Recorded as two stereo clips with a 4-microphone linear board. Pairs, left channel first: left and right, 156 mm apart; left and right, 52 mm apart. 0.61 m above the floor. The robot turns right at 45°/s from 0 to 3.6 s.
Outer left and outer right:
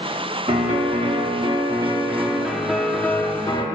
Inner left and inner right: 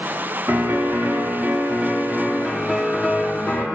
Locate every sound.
0.5 s a piano: 100° right, 1.3 m; by 3.6 s 40° left, 1.3 m